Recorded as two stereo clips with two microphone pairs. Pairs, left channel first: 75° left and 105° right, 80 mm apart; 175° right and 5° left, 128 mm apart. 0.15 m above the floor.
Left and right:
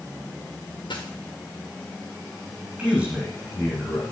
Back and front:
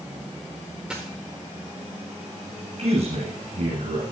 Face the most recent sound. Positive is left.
turn(degrees=-25)